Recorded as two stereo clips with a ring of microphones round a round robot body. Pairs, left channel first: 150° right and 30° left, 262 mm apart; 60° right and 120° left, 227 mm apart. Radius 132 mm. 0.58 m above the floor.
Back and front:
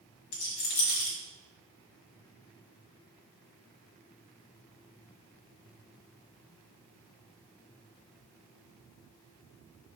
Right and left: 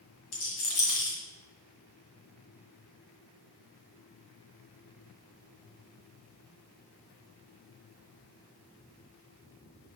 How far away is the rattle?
About 1.7 m.